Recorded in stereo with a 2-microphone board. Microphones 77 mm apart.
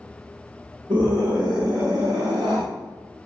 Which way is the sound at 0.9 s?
60° right (ahead or behind).